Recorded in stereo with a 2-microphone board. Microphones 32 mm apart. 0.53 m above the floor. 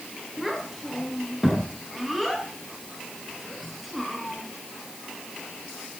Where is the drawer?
I don't hear a drawer.